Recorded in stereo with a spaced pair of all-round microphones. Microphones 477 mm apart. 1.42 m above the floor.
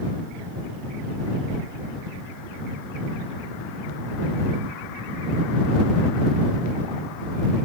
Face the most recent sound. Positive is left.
No sound to turn to.